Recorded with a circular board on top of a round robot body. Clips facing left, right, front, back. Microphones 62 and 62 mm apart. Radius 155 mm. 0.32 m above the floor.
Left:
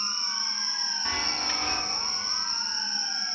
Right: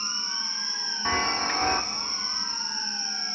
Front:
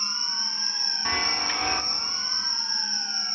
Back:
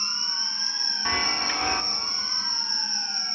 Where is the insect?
60° left, 5.5 m.